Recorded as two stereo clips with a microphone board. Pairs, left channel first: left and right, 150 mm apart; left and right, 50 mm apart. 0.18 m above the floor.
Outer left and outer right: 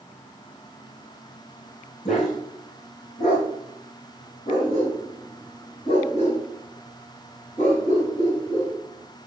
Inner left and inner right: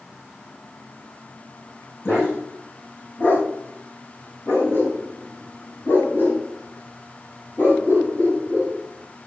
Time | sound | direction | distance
2.0 | a dog barking | 60° left (ahead or behind) | 5 m